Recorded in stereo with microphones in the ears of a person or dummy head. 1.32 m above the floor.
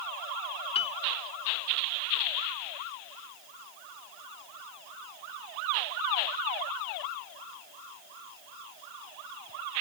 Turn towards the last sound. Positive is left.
turn(degrees=35)  # may be behind; listen again after turning